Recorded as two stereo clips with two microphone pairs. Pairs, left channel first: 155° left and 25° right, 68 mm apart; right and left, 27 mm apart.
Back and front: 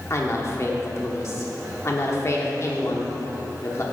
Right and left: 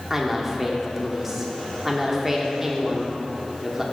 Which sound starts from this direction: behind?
A woman speaking, at 0.1 s.